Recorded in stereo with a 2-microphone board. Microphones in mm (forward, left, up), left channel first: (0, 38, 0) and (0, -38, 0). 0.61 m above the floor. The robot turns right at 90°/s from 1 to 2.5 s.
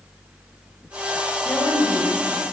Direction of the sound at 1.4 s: 130° left.